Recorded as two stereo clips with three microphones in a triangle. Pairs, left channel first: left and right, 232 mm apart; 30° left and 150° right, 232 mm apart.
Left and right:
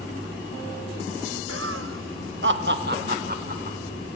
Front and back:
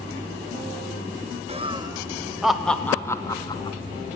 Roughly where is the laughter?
Right.